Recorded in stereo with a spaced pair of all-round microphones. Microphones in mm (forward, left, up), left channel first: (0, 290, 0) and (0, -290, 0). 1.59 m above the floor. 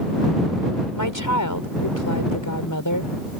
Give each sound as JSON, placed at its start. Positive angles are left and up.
{"t": 0.9, "sound": "a woman speaking", "side_deg": 30}